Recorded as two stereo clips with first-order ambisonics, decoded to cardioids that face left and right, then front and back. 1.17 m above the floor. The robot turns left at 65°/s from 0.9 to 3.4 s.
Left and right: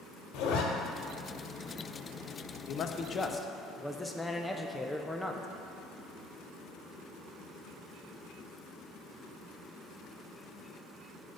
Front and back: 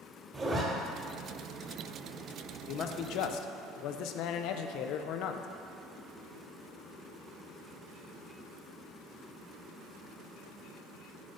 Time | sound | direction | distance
0.3 | a zipper | 110° left | 1.4 m
2.7 | a man speaking | 55° left | 0.6 m